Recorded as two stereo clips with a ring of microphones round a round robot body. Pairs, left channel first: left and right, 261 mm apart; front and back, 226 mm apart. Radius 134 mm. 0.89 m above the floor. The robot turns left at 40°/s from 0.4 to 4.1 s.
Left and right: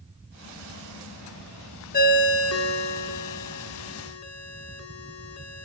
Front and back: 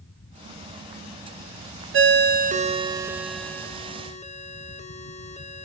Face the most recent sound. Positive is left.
turn(degrees=60)